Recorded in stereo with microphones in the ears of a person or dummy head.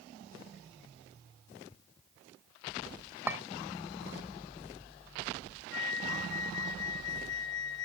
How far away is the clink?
About 1.2 m.